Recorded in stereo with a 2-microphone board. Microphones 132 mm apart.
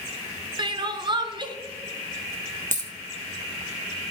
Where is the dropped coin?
85° right, 1.3 m.